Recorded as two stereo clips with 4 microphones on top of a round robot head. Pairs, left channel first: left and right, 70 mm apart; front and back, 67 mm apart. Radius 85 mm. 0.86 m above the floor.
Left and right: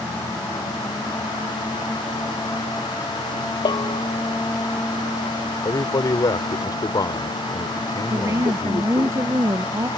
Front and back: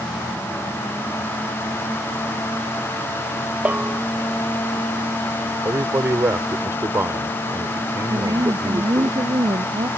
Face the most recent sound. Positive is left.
turn(degrees=-140)